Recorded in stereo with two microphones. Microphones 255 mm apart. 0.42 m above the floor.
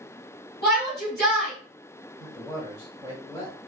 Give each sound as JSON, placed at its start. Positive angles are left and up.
{"t": 0.6, "sound": "a shout", "side_deg": 40, "distance_m": 2.5}
{"t": 2.2, "sound": "a man speaking", "side_deg": 15, "distance_m": 2.5}